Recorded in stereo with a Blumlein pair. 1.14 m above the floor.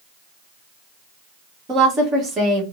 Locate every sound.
1.7 s a woman speaking: 25° right, 1.4 m